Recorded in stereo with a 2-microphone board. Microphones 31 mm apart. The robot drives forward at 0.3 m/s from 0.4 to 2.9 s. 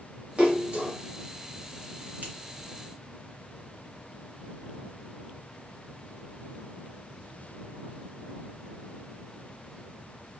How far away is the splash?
About 1.6 m.